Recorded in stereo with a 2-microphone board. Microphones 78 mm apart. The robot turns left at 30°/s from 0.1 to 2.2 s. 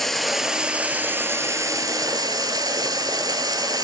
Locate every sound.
0.0 s running water: 5° left, 0.8 m; by 3.8 s 60° right, 0.8 m